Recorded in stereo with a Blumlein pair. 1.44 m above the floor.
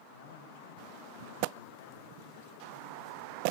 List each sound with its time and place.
0.1 s a man speaking: 55° left, 7.5 m